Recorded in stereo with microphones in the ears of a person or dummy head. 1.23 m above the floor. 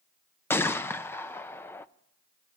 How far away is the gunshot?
About 0.5 m.